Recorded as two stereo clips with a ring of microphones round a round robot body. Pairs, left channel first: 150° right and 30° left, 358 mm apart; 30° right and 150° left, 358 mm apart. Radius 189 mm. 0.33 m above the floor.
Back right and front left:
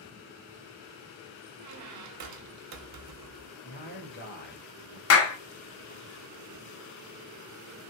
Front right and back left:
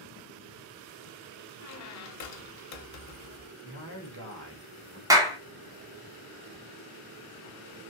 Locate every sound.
1.6 s a squeak: straight ahead, 0.6 m
3.6 s a man speaking: 170° left, 1.1 m
5.1 s a clap: 135° right, 0.7 m